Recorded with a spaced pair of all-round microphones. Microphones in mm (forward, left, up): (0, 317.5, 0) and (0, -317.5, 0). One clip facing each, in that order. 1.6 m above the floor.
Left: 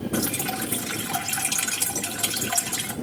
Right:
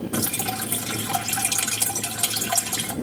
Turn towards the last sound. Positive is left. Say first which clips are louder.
# left 1 dB
turn(degrees=-60)  # may be behind; listen again after turning